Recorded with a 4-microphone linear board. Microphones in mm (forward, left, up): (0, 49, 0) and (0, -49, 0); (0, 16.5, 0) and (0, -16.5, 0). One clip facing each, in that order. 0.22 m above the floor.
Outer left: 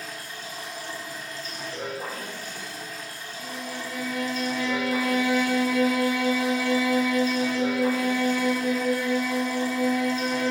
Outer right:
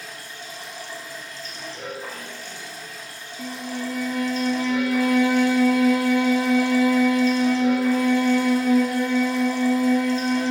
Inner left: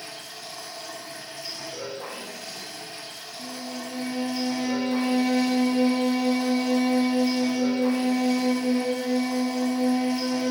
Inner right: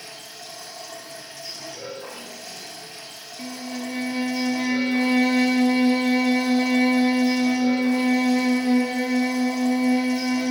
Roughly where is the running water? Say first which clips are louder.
Outer left 1 dB, inner left 1 dB; left.